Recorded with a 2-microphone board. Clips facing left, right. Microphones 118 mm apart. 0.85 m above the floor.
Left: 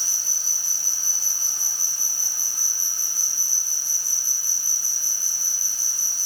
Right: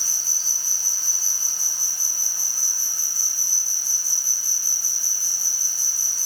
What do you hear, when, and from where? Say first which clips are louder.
0.0 s an insect: right 1 dB; 75° right (ahead or behind), 6.5 m